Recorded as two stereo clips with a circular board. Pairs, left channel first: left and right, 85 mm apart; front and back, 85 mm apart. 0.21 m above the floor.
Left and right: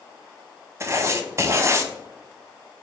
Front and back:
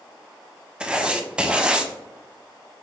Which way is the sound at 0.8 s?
110° right.